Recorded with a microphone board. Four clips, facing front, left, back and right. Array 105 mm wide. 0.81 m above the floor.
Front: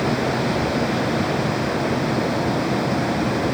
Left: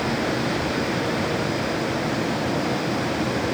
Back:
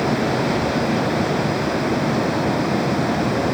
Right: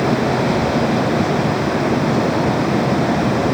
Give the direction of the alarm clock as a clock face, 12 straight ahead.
I don't hear an alarm clock.